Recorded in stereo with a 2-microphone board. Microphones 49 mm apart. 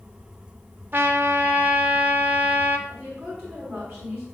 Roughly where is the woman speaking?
Centre.